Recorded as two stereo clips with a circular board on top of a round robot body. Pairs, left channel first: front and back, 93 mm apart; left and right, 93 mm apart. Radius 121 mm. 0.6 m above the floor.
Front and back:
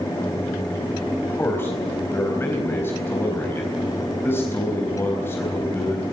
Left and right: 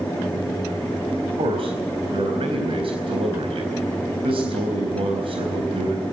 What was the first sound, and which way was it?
A man speaking, 65° right.